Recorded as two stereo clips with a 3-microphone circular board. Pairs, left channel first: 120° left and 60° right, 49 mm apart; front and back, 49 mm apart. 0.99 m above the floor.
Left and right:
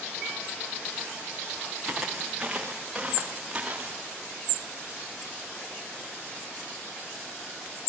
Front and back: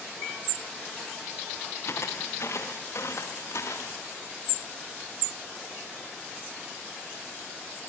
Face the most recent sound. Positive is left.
turn(degrees=10)